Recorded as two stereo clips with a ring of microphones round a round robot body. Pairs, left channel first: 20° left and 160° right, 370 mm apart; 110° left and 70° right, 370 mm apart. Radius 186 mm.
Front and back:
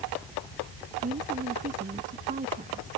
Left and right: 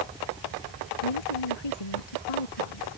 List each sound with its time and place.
1.0 s a woman speaking: 130° left